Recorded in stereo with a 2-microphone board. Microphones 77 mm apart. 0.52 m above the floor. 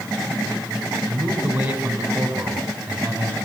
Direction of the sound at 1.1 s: 15° right (ahead or behind).